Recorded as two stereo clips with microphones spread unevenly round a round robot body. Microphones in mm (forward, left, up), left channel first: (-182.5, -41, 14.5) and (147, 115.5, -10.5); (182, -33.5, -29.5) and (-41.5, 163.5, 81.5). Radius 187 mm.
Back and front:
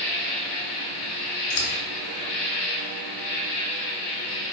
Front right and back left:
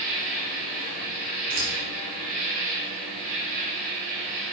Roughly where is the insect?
Behind right.